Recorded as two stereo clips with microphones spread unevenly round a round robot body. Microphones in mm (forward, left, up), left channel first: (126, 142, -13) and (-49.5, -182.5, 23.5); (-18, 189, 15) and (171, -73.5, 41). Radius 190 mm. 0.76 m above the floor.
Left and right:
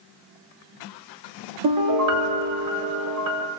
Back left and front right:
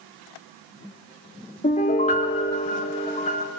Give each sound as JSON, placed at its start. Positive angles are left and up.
{"t": 1.6, "sound": "a piano", "azimuth_deg": -165, "distance_m": 1.5}